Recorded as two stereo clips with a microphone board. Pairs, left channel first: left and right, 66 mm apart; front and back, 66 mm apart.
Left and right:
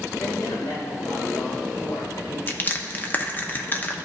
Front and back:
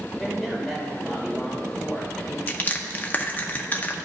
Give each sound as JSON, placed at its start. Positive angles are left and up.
{"t": 0.2, "sound": "a man speaking", "azimuth_deg": 90, "distance_m": 2.5}
{"t": 2.5, "sound": "crushing", "azimuth_deg": 45, "distance_m": 0.7}